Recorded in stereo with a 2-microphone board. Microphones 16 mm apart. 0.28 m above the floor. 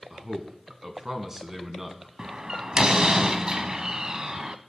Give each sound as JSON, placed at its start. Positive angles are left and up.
{"t": 0.1, "sound": "a man speaking", "side_deg": -25, "distance_m": 2.5}
{"t": 2.2, "sound": "a door slam", "side_deg": -50, "distance_m": 1.1}